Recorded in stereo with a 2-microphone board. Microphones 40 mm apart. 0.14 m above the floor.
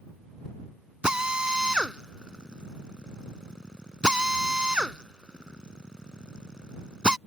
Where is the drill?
20° right (ahead or behind).